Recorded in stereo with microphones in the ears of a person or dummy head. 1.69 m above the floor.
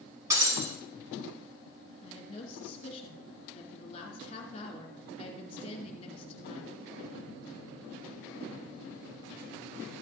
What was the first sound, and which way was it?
Breaking glass, 15° right (ahead or behind).